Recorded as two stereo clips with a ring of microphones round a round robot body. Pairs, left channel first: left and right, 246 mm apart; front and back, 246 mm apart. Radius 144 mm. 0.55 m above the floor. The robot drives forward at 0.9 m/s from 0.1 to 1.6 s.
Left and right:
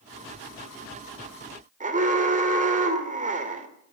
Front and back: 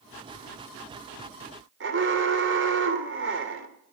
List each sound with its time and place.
1.8 s an alarm: 145° right, 2.5 m